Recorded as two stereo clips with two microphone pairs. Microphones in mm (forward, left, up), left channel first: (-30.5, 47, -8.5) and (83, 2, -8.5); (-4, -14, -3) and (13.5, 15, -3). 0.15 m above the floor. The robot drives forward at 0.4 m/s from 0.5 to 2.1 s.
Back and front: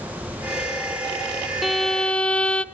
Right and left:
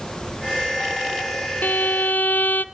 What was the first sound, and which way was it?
A violin, 110° right.